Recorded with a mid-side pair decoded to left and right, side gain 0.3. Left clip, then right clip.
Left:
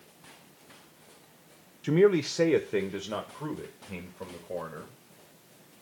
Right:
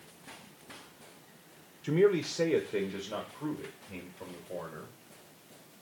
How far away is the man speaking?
About 0.6 m.